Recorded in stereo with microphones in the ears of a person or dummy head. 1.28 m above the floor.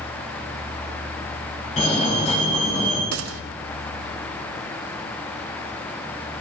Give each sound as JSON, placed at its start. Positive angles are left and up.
{"t": 1.8, "sound": "a fire alarm", "side_deg": 35, "distance_m": 6.0}
{"t": 3.1, "sound": "a gunshot", "side_deg": -80, "distance_m": 0.9}